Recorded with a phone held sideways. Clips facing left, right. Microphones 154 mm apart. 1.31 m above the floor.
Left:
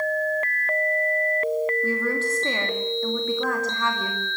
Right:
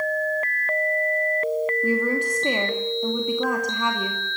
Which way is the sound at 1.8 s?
15° right (ahead or behind).